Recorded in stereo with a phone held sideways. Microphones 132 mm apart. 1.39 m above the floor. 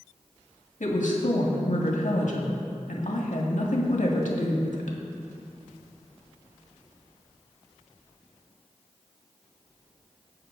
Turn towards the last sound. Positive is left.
turn(degrees=75)  # may be behind; listen again after turning